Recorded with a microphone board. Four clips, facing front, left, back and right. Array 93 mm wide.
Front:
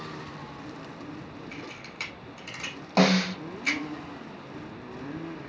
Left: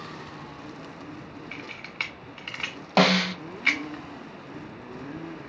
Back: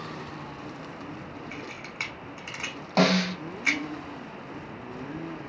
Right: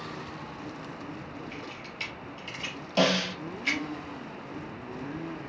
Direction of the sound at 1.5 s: 115° left.